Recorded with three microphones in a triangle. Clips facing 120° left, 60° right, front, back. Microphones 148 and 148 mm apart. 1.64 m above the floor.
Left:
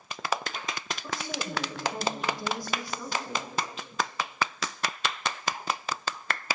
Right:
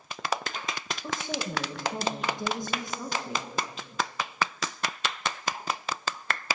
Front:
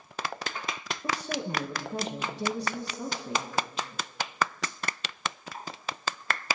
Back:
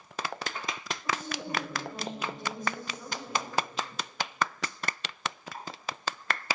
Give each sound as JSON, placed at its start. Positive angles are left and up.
{"t": 1.0, "sound": "a woman speaking", "azimuth_deg": 10, "distance_m": 2.5}